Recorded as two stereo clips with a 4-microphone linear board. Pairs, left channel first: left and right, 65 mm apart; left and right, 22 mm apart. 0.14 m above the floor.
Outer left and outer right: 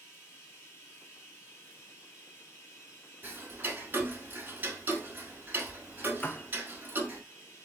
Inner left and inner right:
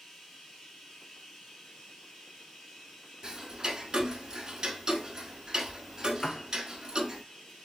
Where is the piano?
30° left (ahead or behind), 0.5 m.